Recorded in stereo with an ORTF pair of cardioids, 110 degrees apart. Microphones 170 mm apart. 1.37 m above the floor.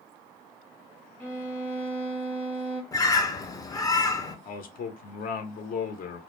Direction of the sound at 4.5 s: 60° left.